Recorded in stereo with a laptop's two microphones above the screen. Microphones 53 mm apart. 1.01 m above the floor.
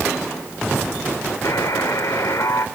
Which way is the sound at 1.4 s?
80° left.